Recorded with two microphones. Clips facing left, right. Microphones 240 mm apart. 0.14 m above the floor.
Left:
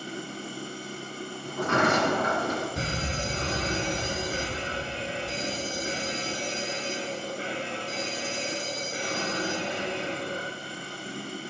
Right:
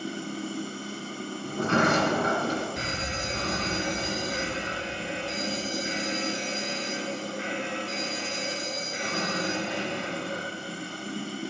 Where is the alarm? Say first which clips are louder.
Left 2 dB; 35° left (ahead or behind), 1.2 m.